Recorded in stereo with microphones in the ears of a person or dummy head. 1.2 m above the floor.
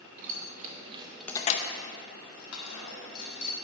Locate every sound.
0.2 s keys jangling: 50° right (ahead or behind), 1.7 m; by 3.6 s 75° left (ahead or behind), 3 m